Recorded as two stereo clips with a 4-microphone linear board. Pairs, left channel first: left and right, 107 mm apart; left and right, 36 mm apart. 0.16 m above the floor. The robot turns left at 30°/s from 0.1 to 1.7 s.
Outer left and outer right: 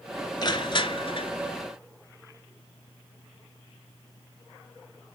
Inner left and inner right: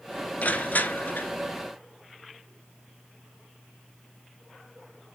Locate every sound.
0.4 s crushing: 40° left (ahead or behind), 1.4 m; by 1.3 s 55° left (ahead or behind), 1.4 m